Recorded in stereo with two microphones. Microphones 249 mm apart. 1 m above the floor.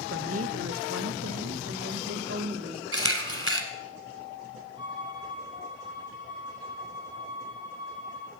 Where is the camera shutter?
55° right (ahead or behind), 1.5 m.